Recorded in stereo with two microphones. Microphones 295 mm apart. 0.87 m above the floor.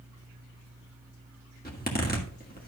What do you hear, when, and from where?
1.6 s a zipper: 30° left (ahead or behind), 2.5 m